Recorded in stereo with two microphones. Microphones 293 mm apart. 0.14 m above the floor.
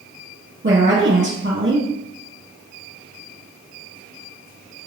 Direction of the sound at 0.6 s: 40° right (ahead or behind).